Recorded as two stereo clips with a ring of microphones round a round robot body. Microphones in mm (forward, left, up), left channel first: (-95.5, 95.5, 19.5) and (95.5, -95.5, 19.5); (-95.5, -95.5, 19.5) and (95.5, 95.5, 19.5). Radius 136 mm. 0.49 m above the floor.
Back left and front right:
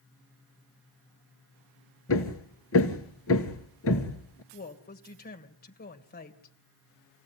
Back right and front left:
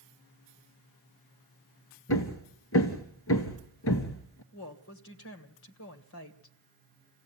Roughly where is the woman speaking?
Behind.